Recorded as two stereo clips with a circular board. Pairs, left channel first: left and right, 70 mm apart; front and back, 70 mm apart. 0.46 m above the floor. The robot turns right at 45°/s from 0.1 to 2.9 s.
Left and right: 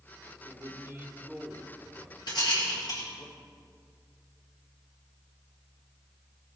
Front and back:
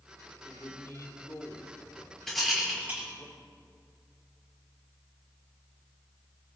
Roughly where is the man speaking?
Ahead right.